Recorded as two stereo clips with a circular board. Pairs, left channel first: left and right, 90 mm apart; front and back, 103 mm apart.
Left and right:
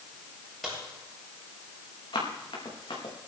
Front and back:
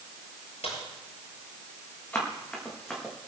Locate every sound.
0.6 s a crack: straight ahead, 9 m
2.1 s running footsteps: 70° left, 4.5 m; by 3.1 s 90° left, 4.5 m